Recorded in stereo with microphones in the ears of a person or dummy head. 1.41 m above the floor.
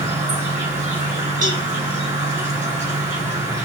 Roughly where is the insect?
Right.